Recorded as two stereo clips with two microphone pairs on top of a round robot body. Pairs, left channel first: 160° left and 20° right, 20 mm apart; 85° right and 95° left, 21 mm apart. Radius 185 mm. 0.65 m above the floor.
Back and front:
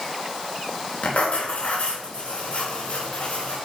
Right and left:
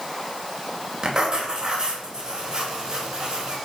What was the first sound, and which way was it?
Writing, 160° left.